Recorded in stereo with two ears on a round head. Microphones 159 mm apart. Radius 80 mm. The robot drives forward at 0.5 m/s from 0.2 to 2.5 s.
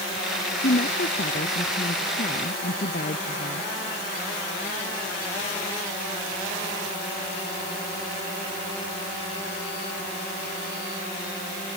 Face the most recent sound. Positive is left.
turn(degrees=50)  # may be behind; listen again after turning